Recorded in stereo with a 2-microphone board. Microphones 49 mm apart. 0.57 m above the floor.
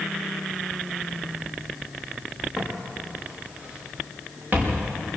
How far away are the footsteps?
About 5.5 m.